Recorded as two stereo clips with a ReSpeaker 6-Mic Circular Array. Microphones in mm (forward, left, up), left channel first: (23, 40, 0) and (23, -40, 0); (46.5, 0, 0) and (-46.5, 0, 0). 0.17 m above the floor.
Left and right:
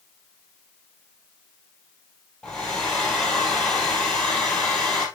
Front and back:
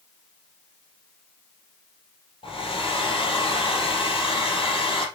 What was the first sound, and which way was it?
A hair dryer, 10° left.